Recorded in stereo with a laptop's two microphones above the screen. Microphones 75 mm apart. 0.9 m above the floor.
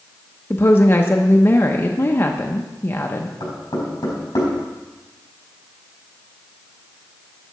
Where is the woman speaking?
30° left (ahead or behind), 0.7 m.